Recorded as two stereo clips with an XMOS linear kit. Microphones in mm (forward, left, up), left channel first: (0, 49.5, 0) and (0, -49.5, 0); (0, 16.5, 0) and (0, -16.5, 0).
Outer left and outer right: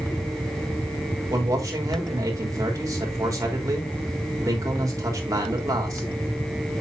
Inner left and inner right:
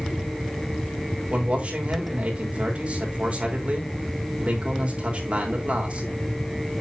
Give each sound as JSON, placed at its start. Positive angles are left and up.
{"t": 1.3, "sound": "a man speaking", "side_deg": -35, "distance_m": 3.5}